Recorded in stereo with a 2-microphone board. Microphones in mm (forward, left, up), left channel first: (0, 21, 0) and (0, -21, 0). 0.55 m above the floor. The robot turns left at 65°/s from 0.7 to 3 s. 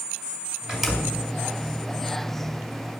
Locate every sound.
0.7 s a door slam: 15° right (ahead or behind), 2.5 m; by 1.2 s 20° left (ahead or behind), 2.5 m